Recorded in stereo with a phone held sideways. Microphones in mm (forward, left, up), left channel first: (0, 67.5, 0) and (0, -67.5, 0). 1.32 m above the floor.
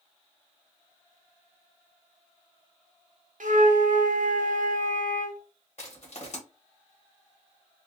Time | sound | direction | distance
3.4 | a flute | 70° right (ahead or behind) | 0.7 m
5.8 | crushing | 55° left (ahead or behind) | 1.6 m